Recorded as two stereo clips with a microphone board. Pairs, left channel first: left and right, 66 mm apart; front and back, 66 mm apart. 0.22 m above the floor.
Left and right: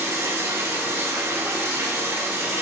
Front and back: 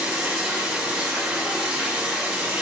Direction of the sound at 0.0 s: 120° right.